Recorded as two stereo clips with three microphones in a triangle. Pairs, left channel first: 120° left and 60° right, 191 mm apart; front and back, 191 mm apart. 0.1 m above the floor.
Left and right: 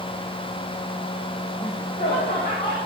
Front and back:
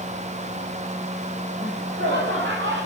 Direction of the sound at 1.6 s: 175° left.